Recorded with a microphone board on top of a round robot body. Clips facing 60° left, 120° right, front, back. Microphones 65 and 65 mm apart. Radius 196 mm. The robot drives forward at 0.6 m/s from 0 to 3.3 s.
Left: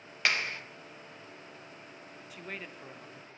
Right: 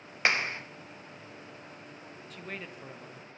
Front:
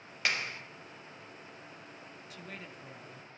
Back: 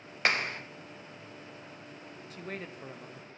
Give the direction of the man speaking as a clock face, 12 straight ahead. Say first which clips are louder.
Right 1 dB, back 7 dB; 7 o'clock.